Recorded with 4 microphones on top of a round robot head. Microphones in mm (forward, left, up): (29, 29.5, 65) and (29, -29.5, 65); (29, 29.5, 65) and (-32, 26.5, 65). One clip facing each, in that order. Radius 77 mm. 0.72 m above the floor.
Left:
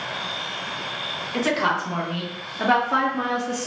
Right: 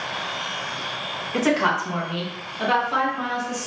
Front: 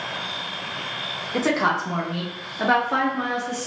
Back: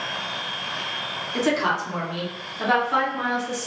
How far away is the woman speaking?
About 1.1 m.